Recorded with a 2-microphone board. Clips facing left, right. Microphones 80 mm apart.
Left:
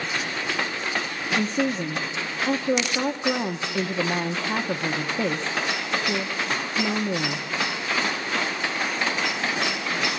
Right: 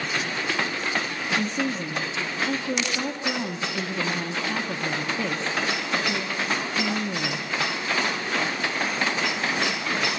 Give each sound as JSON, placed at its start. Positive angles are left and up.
{"t": 1.4, "sound": "a woman speaking", "side_deg": 25, "distance_m": 0.9}